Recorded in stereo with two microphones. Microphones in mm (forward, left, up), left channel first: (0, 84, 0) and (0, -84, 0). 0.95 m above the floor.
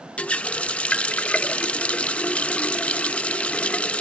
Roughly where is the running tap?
Centre.